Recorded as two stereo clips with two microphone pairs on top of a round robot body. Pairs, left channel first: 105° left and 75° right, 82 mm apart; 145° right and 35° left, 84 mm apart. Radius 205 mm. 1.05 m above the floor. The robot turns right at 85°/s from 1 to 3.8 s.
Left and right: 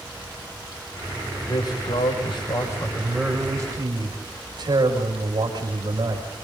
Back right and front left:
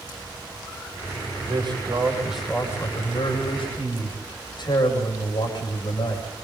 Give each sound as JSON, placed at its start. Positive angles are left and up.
{"t": 1.5, "sound": "a man speaking", "azimuth_deg": 50, "distance_m": 6.0}